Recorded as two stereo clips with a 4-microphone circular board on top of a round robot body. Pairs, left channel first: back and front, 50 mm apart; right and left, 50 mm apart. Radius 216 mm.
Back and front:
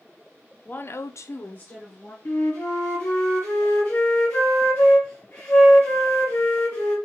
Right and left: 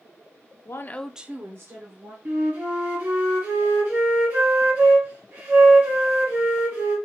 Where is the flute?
135° left, 1.2 m.